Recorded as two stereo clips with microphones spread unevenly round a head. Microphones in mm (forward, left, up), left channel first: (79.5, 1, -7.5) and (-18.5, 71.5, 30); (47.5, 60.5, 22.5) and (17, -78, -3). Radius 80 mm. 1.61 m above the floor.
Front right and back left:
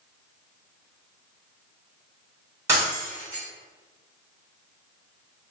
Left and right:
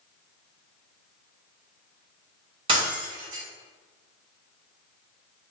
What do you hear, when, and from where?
2.7 s breaking glass: 165° right, 1.4 m